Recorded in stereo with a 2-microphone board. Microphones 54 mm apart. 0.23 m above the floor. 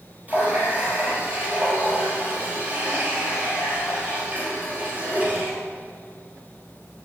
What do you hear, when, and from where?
0.3 s a running tap: 25° right (ahead or behind), 3.5 m